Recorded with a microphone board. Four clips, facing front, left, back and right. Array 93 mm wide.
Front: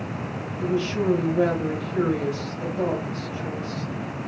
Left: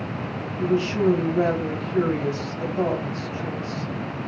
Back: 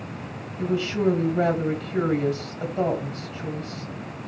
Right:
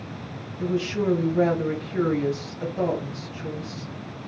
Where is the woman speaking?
155° left, 1.4 m.